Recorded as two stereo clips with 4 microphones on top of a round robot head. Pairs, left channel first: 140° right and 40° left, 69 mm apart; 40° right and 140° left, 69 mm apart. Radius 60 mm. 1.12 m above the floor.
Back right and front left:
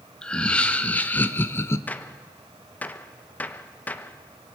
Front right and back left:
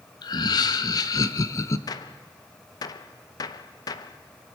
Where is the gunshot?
75° right, 0.7 m.